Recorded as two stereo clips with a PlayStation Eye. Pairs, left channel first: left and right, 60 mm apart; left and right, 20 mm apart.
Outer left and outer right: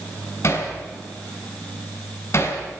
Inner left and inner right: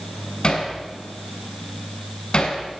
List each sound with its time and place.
0.4 s hammering: 50° left (ahead or behind), 6 m